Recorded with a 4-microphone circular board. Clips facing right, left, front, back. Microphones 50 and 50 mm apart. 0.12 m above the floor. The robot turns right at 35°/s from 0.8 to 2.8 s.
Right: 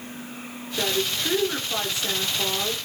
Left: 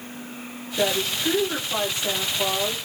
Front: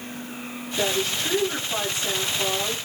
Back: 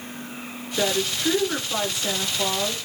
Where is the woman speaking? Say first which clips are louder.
Left 2 dB, back 1 dB; straight behind, 1.1 m; by 2.8 s 115° right, 1.1 m.